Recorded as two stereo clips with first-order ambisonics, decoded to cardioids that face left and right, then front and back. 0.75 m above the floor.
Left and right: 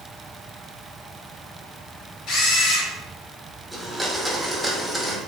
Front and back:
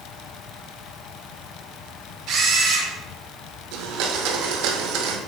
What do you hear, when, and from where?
2.3 s a camera shutter: 135° left, 2 m
3.7 s a blender: straight behind, 0.6 m